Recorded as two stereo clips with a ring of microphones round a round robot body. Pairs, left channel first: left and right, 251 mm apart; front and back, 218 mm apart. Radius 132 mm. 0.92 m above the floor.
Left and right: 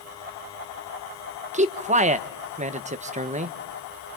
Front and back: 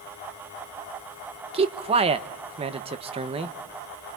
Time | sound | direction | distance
1.5 | a man speaking | 135° right | 0.9 m